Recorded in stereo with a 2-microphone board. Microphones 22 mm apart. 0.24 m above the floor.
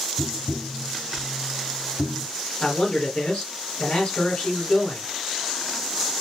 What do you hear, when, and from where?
0.2 s tapping: centre (ahead or behind), 0.6 m
2.6 s a man speaking: 60° left (ahead or behind), 2 m